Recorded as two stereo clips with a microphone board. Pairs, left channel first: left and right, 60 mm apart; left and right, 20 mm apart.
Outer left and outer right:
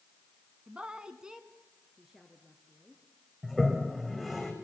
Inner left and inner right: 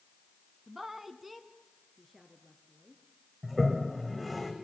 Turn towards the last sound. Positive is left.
turn(degrees=-5)  # may be behind; listen again after turning